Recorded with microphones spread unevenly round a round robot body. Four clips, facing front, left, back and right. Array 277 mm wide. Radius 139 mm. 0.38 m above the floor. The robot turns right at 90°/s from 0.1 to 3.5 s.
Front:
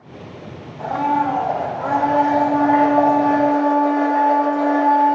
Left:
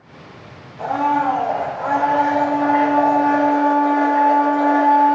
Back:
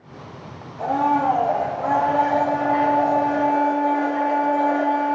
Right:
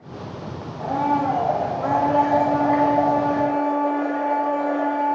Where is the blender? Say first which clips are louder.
Left 3 dB, even; 150° left, 1.7 m; by 5.2 s 35° left, 1.7 m.